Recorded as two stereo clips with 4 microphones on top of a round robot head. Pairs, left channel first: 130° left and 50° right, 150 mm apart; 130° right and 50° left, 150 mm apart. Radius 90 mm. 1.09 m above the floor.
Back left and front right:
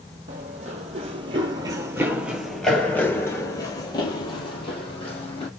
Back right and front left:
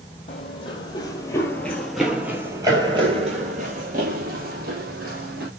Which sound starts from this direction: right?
Running footsteps, at 0.3 s.